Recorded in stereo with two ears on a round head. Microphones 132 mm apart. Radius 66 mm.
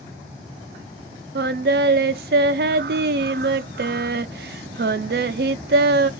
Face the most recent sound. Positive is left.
turn(degrees=-70)  # may be behind; listen again after turning